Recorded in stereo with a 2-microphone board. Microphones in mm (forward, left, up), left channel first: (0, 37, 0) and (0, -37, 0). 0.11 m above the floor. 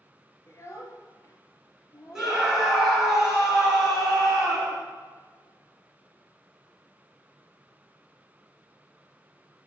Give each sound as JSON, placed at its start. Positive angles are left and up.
{"t": 0.5, "sound": "a child speaking", "side_deg": 40, "distance_m": 1.2}
{"t": 2.1, "sound": "a scream", "side_deg": -5, "distance_m": 2.0}